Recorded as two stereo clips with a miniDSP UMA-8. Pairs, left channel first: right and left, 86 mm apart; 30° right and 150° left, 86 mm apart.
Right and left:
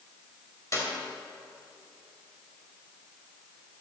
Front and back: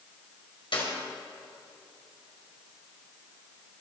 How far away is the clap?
About 5 m.